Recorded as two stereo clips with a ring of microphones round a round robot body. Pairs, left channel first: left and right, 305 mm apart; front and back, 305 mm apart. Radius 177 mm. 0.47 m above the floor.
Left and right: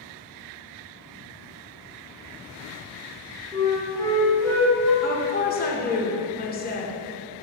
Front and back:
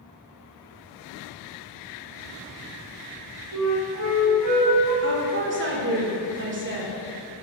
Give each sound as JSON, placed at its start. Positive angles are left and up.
{"t": 3.5, "sound": "a flute", "azimuth_deg": 170, "distance_m": 3.0}
{"t": 5.0, "sound": "a woman speaking", "azimuth_deg": 140, "distance_m": 1.8}